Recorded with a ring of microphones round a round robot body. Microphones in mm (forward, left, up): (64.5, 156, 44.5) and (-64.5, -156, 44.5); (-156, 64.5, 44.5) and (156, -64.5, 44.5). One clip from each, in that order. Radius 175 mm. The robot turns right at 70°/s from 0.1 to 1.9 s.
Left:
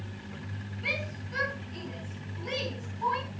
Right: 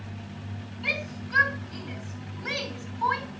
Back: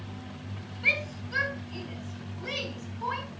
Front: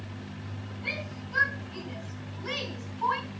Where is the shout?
165° left, 5.5 m; by 3.3 s 120° right, 5.5 m.